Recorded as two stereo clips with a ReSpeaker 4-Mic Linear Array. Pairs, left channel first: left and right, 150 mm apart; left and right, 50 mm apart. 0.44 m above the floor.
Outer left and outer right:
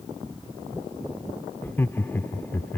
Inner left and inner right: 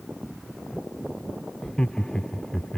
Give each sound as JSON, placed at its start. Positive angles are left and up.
{"t": 1.6, "sound": "laughter", "side_deg": 15}